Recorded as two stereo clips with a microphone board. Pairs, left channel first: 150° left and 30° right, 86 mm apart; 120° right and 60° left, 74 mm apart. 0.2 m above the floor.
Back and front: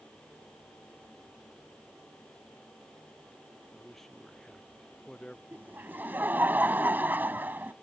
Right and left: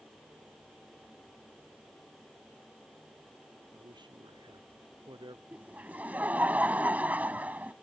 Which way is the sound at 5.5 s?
15° left.